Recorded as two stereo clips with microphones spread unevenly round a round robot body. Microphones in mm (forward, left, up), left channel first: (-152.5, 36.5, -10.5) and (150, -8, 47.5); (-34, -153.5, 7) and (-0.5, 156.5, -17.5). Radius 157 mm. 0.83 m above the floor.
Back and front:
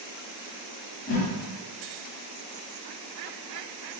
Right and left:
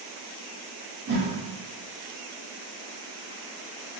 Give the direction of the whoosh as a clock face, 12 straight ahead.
7 o'clock.